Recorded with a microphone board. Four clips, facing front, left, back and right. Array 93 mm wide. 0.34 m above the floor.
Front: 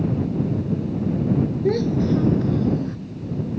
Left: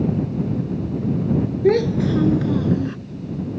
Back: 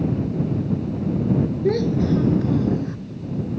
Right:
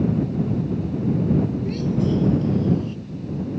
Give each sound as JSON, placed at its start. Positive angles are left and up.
{"t": 1.6, "sound": "a child speaking", "azimuth_deg": 90}